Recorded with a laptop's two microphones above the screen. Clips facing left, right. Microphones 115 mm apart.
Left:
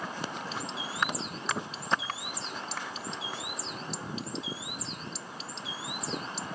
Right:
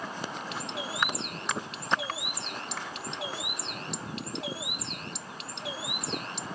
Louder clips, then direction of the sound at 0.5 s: Right 1 dB; 65° right (ahead or behind).